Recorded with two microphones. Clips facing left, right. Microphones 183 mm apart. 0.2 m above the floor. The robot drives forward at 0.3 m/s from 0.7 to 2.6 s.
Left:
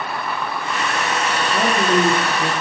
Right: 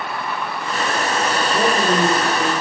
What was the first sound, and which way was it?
A woman speaking, 50° right (ahead or behind).